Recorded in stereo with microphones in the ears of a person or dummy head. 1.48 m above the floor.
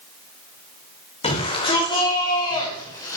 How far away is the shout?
About 6 m.